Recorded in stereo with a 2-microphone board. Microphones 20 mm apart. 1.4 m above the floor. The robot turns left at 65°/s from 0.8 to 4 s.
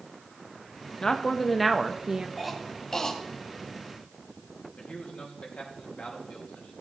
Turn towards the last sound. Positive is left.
turn(degrees=85)